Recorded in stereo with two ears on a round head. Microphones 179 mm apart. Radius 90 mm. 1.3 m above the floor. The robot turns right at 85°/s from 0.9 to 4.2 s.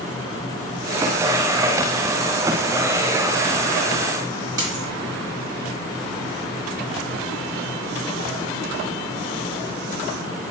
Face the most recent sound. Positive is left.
turn(degrees=-20)  # may be behind; listen again after turning